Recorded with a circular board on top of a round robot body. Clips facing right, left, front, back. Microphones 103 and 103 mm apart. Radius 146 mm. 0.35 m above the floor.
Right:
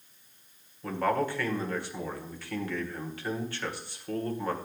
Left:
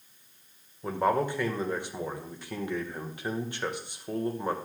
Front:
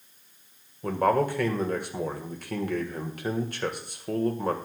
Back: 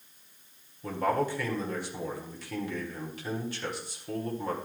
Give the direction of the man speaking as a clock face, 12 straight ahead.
11 o'clock.